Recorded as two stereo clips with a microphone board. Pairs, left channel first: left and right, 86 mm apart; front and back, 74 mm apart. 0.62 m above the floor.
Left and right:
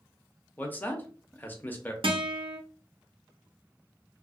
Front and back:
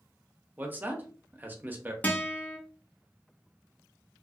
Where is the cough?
No cough in this recording.